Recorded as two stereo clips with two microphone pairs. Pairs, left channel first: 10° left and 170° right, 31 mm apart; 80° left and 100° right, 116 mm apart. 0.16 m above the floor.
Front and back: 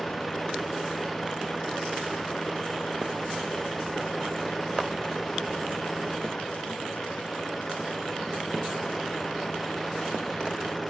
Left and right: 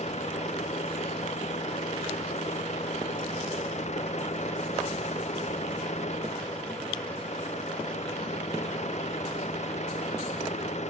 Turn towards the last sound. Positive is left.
turn(degrees=95)